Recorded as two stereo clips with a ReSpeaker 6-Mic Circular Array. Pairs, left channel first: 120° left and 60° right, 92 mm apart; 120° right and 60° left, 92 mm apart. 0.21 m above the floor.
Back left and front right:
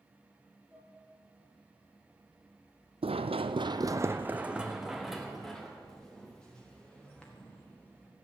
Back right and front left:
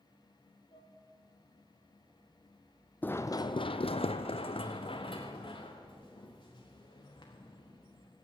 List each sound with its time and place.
0.7 s dishes clattering: 150° right, 3.5 m
3.0 s running footsteps: 45° right, 0.7 m; by 8.1 s 165° right, 4 m